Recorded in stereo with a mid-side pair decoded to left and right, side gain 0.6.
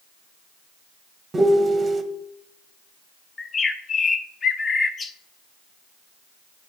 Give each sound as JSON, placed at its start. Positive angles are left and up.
{"t": 1.3, "sound": "a piano", "azimuth_deg": -25, "distance_m": 0.7}
{"t": 3.4, "sound": "a bird", "azimuth_deg": 30, "distance_m": 0.6}